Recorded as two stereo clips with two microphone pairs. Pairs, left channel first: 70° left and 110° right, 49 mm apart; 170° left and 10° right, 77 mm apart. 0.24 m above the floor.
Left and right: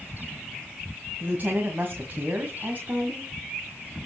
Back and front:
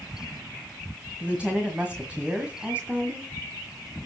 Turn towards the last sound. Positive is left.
turn(degrees=-80)